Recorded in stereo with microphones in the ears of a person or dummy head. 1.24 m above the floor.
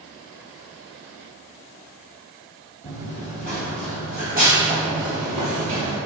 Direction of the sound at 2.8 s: 15° left (ahead or behind).